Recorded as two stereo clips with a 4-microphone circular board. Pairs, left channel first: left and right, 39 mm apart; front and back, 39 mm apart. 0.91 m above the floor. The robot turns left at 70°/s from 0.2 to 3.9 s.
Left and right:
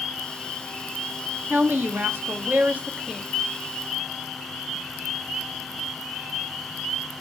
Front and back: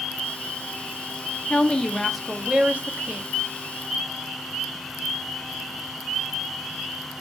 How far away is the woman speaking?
About 1.1 m.